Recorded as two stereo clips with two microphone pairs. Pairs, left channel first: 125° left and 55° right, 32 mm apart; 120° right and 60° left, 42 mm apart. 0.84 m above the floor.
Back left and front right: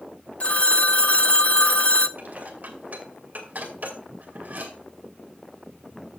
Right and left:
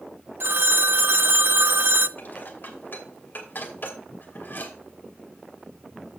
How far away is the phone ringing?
About 0.6 m.